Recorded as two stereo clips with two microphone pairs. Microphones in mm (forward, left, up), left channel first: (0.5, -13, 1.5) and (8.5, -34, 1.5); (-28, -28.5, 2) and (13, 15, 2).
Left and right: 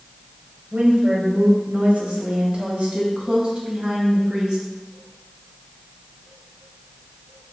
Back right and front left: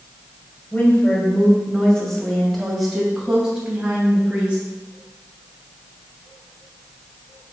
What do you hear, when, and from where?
0.7 s a woman speaking: 75° right, 2.5 m; by 4.6 s 25° right, 3.5 m